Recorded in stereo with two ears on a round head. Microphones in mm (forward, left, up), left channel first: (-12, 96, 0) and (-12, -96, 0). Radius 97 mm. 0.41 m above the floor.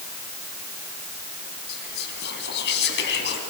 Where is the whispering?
50° left (ahead or behind), 4 m.